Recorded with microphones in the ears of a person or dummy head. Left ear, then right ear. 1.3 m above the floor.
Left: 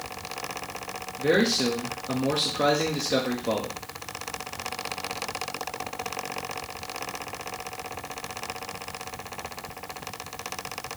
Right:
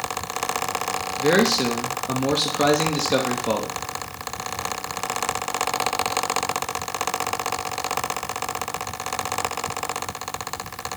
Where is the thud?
I don't hear a thud.